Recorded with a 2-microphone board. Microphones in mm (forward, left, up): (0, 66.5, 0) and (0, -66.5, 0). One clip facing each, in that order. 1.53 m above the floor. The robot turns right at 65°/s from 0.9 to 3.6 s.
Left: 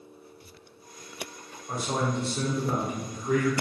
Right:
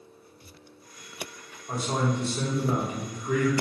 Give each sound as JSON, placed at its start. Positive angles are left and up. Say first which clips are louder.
{"t": 1.7, "sound": "a man speaking", "louder": "right 1 dB", "azimuth_deg": 0, "distance_m": 1.0}